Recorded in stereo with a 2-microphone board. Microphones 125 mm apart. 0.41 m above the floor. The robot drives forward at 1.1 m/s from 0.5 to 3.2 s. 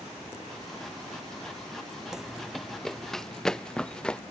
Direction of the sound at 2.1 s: Centre (ahead or behind).